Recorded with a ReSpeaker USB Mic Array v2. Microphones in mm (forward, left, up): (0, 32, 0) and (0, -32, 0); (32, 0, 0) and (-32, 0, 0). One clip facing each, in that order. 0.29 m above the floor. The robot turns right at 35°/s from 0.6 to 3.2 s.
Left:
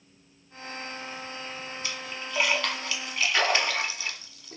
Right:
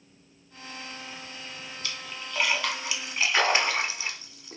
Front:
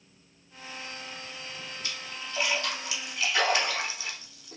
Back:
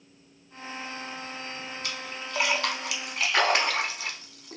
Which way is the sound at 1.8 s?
160° left.